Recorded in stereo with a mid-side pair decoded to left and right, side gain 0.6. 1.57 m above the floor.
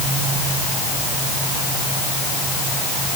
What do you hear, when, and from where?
Only background noise.